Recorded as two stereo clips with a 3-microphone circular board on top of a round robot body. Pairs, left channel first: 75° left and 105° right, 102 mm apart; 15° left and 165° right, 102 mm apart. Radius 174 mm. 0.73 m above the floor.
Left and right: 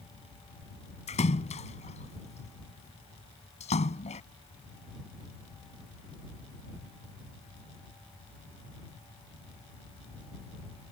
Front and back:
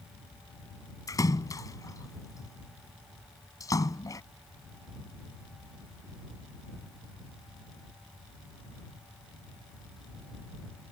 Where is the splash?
70° left.